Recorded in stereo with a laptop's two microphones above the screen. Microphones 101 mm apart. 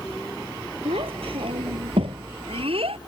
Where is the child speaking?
70° right (ahead or behind); by 3.0 s 75° right (ahead or behind).